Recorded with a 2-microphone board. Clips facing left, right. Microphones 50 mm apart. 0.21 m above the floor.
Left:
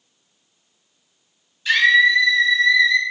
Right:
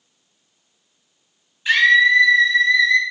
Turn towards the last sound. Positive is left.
turn(degrees=-45)  # may be behind; listen again after turning